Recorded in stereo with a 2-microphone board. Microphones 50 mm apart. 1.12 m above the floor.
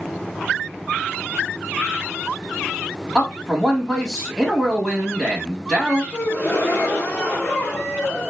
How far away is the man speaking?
About 1.1 m.